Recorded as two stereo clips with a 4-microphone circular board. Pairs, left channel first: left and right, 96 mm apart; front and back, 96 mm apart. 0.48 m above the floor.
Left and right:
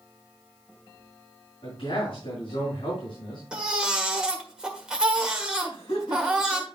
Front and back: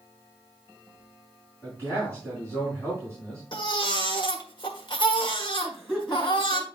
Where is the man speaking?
70° left, 5 m.